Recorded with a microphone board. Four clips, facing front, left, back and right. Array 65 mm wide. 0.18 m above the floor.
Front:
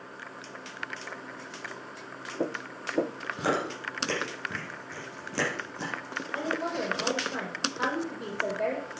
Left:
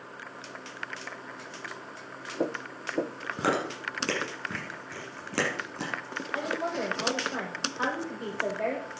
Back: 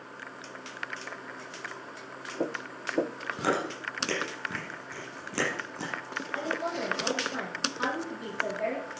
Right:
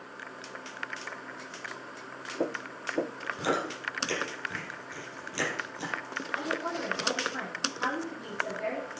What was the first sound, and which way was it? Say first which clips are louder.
Chewing: left 2 dB, even; 95° left.